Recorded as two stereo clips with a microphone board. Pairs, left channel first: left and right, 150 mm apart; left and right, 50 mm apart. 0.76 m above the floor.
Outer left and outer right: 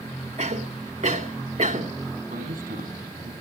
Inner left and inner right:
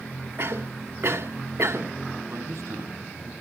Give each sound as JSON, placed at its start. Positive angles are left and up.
{"t": 0.4, "sound": "a cough", "side_deg": -50, "distance_m": 2.0}
{"t": 2.3, "sound": "a man speaking", "side_deg": -65, "distance_m": 6.0}